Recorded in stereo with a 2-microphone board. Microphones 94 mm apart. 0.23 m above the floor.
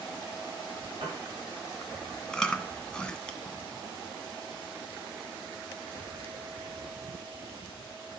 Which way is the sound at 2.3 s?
10° left (ahead or behind).